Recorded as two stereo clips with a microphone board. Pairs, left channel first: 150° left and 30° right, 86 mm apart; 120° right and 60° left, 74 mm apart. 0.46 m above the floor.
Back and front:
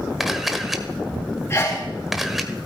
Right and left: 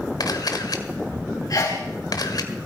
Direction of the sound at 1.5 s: 150° right.